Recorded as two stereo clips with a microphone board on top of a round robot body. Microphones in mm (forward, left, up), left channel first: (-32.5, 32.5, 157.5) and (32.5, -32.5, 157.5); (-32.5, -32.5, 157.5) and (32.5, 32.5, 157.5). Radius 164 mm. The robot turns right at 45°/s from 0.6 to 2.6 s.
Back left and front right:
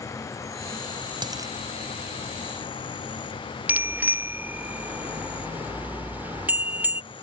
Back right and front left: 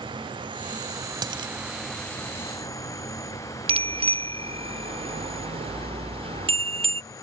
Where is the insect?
80° left; by 7.2 s 170° left.